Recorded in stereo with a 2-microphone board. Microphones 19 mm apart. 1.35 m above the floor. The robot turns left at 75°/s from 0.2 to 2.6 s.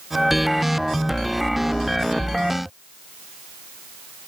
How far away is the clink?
No clink in this recording.